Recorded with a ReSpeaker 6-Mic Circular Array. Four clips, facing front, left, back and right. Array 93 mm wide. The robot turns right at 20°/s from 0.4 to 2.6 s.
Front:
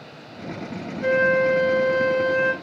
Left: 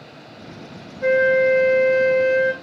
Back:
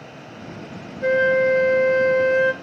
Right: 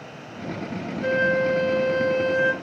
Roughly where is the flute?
Behind left.